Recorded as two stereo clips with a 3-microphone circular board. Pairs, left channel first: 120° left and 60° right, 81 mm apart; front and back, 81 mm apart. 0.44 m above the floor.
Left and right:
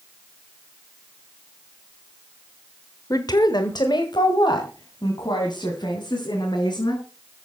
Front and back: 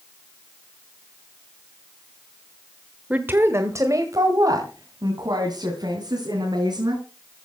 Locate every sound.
3.1 s a woman speaking: 110° left, 1.2 m; by 7.0 s 150° left, 5 m